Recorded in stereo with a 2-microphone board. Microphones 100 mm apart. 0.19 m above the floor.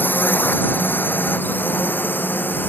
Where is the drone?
20° left (ahead or behind).